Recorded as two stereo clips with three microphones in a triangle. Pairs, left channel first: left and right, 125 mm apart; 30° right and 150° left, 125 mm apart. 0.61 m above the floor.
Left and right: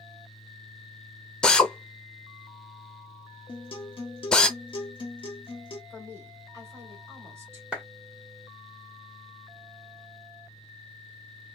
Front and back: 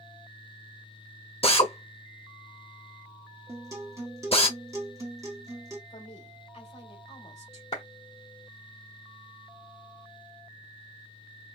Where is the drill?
5° left, 0.7 m.